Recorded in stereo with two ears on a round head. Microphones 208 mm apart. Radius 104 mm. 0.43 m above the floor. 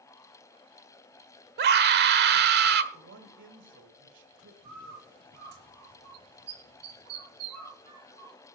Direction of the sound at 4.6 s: 75° right (ahead or behind).